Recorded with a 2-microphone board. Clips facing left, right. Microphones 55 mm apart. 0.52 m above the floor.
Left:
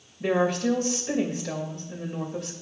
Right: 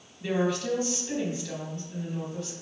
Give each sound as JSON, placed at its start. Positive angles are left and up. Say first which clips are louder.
{"t": 0.2, "sound": "a woman speaking", "louder": "left 4 dB", "side_deg": 65, "distance_m": 2.5}